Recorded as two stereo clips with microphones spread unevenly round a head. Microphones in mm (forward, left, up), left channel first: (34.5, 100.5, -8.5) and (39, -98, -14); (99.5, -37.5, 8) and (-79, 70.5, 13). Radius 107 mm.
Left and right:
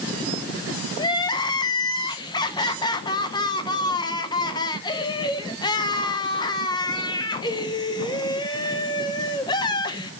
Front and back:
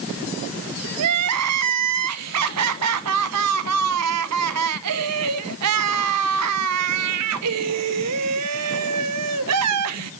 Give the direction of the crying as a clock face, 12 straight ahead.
7 o'clock.